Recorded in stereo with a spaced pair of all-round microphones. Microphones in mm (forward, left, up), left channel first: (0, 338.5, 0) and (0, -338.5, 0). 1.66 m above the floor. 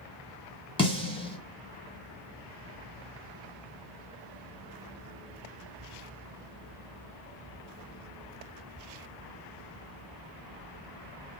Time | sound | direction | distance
0.8 | a snare drum | 10° left (ahead or behind) | 1.1 m